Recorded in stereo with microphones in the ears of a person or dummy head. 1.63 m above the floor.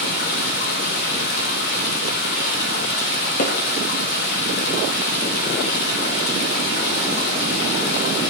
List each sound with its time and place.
0.0 s running water: 45° left (ahead or behind), 1.0 m
3.4 s hammering: 40° left (ahead or behind), 1.3 m